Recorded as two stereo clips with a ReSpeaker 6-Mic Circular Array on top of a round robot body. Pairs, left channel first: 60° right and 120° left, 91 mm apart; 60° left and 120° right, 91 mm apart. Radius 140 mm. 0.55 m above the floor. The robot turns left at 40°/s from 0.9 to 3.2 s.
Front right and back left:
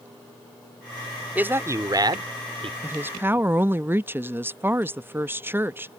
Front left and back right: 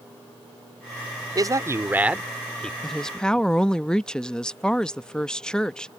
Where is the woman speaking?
140° left; by 5.9 s 125° left.